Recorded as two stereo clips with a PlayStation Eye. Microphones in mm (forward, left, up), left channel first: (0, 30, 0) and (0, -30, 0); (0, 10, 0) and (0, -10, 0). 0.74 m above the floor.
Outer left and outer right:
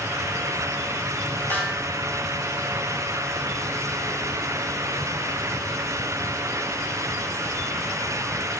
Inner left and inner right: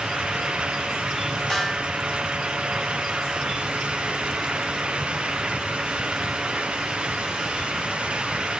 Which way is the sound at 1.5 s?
30° left (ahead or behind).